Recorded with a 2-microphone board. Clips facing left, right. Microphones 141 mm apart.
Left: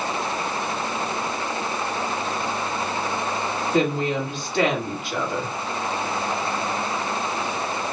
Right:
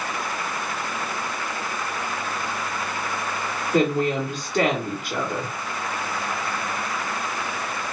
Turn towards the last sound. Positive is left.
turn(degrees=-45)  # may be behind; listen again after turning